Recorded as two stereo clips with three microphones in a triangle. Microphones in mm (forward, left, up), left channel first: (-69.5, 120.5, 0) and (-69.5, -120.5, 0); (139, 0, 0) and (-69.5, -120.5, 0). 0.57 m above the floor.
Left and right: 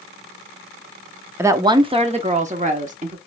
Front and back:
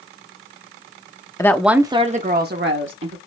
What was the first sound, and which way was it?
A woman speaking, 25° right.